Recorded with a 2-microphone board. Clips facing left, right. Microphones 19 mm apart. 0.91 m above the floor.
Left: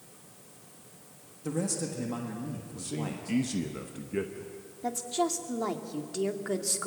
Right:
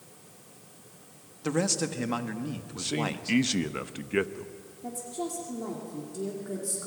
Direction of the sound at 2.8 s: 55° right (ahead or behind).